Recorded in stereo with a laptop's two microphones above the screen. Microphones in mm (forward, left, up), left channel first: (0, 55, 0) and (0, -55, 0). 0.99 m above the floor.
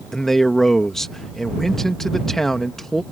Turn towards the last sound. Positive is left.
turn(degrees=5)  # may be behind; listen again after turning